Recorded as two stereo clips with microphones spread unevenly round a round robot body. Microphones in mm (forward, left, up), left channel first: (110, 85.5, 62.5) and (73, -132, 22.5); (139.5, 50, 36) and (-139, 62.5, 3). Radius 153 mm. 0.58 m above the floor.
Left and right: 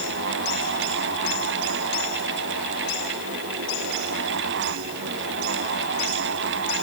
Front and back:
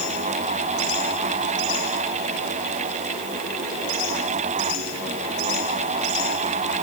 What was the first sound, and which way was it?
Only background noise.